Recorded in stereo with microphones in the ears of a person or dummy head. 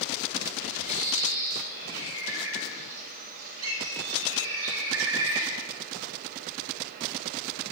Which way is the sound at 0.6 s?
75° right (ahead or behind).